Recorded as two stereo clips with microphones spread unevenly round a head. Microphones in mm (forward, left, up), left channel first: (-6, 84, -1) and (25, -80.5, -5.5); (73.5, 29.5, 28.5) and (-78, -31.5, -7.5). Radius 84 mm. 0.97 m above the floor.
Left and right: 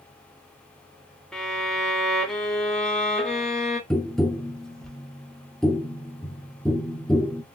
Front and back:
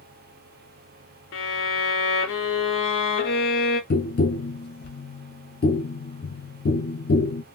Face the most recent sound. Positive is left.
turn(degrees=15)